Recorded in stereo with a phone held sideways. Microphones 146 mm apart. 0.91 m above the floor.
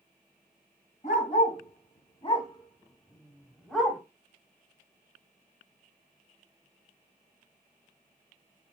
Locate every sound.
1.0 s a dog barking: 55° left (ahead or behind), 1.9 m; by 4.0 s centre (ahead or behind), 1.3 m